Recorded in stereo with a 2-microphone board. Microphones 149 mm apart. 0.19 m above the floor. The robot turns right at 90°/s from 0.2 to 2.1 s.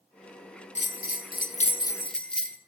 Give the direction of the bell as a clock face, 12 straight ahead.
10 o'clock.